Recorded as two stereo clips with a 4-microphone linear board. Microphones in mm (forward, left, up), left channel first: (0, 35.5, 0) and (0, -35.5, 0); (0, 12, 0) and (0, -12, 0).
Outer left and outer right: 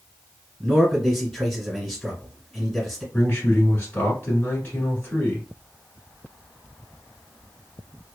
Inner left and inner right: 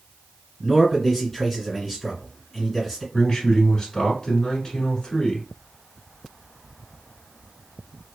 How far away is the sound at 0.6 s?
About 1.6 m.